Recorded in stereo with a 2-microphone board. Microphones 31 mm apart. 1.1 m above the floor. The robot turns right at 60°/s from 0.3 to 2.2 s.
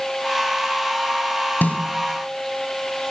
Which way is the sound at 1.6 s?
75° left (ahead or behind).